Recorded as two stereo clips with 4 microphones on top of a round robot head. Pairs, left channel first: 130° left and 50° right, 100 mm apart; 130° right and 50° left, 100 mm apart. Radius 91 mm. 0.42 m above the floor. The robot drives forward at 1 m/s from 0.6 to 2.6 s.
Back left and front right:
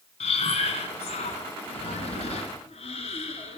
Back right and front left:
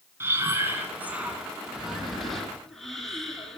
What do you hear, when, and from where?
0.2 s breathing: 120° left, 2.5 m; by 3.6 s 145° left, 4 m